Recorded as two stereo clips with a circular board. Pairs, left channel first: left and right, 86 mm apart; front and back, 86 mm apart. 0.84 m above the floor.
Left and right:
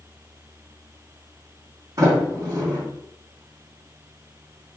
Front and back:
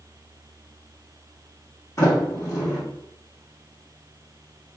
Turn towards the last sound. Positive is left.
turn(degrees=-50)